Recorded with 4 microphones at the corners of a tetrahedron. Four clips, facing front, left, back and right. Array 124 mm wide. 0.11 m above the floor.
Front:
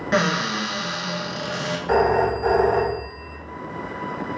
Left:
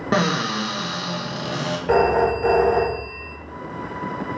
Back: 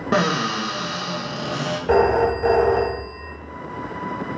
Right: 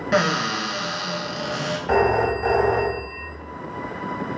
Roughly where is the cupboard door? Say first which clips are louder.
Even, back 1 dB; behind left.